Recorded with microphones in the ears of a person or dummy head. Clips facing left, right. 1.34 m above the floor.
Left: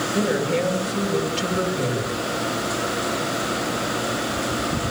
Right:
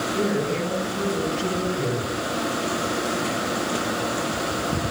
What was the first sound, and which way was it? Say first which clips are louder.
A woman speaking: left 3 dB; 80° left.